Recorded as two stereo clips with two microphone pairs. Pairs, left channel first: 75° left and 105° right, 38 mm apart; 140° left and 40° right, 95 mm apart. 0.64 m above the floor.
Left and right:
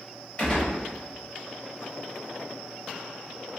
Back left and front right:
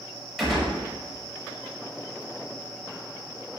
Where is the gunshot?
50° left, 1.0 m.